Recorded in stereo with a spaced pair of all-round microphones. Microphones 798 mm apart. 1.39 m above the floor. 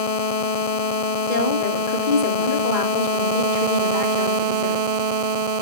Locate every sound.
1.3 s a woman speaking: 75° left (ahead or behind), 3 m